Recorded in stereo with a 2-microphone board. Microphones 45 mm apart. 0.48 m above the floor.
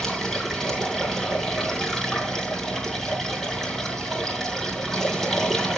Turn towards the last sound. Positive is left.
turn(degrees=10)  # may be behind; listen again after turning